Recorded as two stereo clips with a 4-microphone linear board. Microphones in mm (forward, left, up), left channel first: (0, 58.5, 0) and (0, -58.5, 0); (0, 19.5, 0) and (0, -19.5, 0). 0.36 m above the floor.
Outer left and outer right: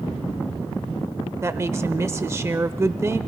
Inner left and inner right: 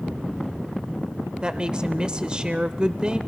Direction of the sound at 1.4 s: 25° right (ahead or behind).